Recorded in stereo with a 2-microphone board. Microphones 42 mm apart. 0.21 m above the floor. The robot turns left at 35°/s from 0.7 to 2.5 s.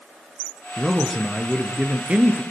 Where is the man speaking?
15° left, 3 m; by 2.4 s 45° right, 3 m.